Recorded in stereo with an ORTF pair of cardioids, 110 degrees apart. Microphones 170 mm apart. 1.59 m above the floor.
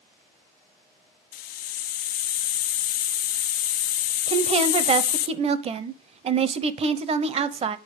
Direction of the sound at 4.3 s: 35° right.